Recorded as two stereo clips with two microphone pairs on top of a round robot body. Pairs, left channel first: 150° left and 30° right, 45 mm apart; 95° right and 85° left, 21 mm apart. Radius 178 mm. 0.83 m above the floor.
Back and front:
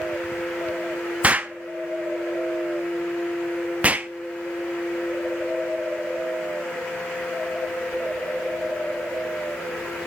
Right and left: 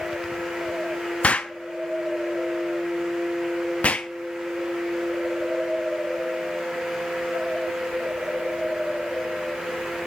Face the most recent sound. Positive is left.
turn(degrees=-90)